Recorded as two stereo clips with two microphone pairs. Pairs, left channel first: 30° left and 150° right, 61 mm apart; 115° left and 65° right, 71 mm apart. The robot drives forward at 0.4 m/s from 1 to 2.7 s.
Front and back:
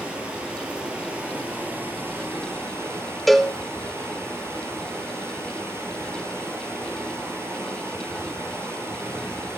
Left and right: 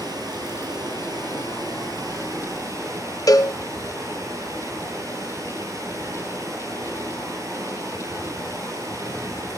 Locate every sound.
0.0 s running water: 80° right, 1.7 m; by 9.6 s 105° right, 1.7 m
3.3 s a cowbell: 115° left, 0.5 m